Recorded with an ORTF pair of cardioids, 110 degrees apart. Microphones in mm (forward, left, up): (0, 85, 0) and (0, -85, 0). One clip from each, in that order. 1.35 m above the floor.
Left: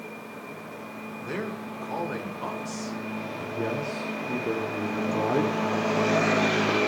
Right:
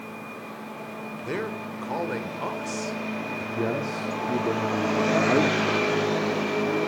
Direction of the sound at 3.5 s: 15° right.